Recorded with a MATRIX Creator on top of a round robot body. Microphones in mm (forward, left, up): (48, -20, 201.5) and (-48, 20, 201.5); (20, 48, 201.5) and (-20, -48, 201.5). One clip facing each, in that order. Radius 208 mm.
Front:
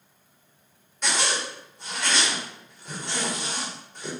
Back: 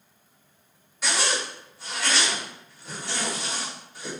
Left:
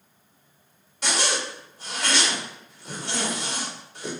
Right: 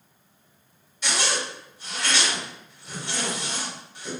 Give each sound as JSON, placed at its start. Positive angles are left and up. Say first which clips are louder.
{"t": 1.0, "sound": "a zipper", "louder": "even, left 1 dB", "azimuth_deg": 70, "distance_m": 2.0}